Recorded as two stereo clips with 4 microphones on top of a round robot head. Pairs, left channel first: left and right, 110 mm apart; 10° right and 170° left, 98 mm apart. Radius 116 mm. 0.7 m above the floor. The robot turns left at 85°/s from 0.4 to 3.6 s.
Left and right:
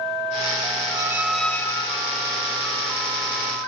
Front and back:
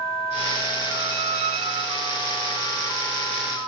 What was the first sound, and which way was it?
A squeak, 145° right.